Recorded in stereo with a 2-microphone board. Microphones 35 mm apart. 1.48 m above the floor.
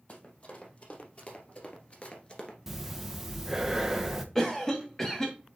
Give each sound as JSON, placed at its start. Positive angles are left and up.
{"t": 0.1, "sound": "running footsteps", "side_deg": 40, "distance_m": 3.5}
{"t": 2.7, "sound": "breathing", "side_deg": -10, "distance_m": 0.9}
{"t": 4.3, "sound": "a cough", "side_deg": 15, "distance_m": 2.0}